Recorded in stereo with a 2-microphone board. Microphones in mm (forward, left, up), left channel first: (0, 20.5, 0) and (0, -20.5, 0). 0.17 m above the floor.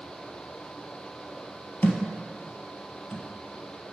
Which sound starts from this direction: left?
A thud, at 1.8 s.